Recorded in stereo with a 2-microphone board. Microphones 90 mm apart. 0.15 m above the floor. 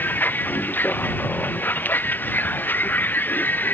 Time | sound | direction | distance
0.0 | a vehicle | 20° left (ahead or behind) | ?